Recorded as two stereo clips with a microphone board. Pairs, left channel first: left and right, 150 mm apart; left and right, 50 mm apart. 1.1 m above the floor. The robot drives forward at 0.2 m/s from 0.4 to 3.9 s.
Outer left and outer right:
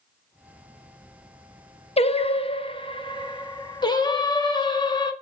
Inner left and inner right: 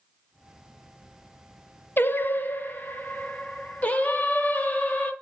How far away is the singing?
About 0.6 m.